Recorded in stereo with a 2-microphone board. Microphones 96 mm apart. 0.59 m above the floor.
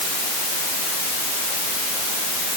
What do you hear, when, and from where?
Only background noise.